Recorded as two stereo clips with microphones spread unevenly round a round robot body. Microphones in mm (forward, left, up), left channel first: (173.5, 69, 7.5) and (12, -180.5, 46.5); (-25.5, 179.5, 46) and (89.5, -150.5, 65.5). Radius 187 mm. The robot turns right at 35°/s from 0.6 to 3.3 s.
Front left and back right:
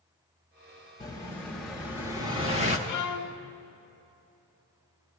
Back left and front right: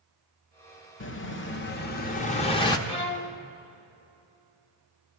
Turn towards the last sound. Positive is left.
turn(degrees=50)